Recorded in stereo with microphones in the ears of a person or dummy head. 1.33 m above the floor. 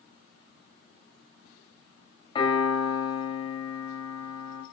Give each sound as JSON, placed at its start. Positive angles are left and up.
{"t": 2.4, "sound": "a piano", "side_deg": 30, "distance_m": 4.0}